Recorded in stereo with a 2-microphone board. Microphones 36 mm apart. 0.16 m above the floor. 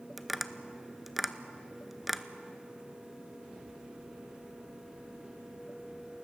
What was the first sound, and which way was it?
Tapping, 5° right (ahead or behind).